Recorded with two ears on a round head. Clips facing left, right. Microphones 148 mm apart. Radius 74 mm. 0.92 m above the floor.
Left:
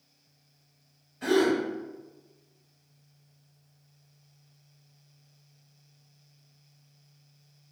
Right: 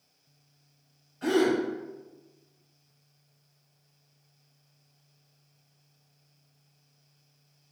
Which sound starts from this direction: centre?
A gasp, at 1.2 s.